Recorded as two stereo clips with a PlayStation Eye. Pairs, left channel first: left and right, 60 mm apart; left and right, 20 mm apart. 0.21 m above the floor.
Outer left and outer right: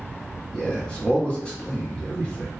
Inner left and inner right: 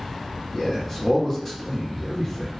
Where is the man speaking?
20° left (ahead or behind), 1.3 m.